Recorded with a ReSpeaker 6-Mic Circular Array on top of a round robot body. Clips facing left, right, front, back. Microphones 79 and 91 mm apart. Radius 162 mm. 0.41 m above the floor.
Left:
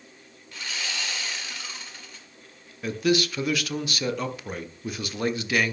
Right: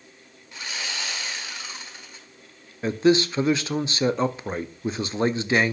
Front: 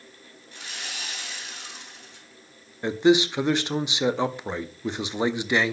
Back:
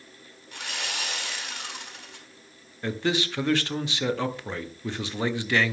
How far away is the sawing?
About 1.8 m.